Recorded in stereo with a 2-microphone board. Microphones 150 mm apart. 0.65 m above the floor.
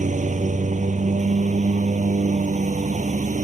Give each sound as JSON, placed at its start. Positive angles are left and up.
{"t": 0.0, "sound": "a lawn mower", "side_deg": -55}